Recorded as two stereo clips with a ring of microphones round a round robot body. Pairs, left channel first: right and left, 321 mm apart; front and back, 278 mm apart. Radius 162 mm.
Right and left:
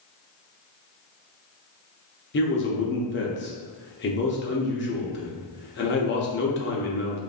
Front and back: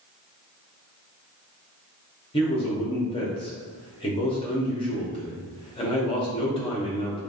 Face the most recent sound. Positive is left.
turn(degrees=-60)